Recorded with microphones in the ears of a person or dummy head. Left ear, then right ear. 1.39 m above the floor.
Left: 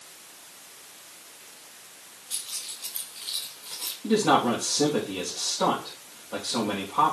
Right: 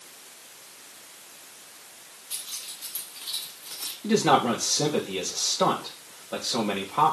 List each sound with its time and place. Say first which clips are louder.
2.3 s keys jangling: left 1 dB; 20° right (ahead or behind), 3.5 m; by 3.9 s 40° right (ahead or behind), 2.5 m
4.0 s a man speaking: right 1 dB; 80° right, 1.7 m